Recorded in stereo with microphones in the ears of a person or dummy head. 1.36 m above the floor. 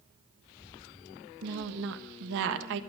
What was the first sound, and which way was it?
A woman speaking, 70° right (ahead or behind).